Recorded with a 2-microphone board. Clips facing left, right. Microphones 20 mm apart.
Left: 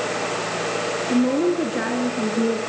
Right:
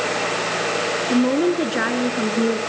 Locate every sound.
1.1 s a woman speaking: 50° right (ahead or behind), 1.7 m